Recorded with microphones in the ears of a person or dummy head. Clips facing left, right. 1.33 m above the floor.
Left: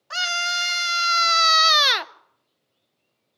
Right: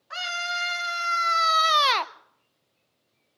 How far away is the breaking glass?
I don't hear breaking glass.